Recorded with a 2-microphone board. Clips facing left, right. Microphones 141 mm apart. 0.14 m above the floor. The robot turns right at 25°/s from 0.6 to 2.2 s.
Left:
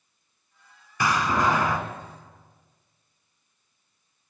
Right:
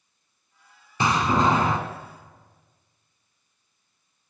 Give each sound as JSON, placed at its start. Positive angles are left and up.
{"t": 1.0, "sound": "a door slam", "side_deg": -25, "distance_m": 0.8}